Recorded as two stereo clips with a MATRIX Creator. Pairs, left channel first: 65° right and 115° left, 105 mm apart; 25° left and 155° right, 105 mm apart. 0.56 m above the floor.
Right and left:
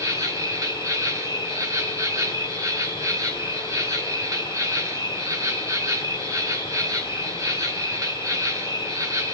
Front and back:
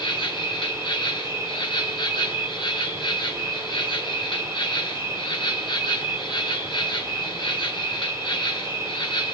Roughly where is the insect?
Ahead left.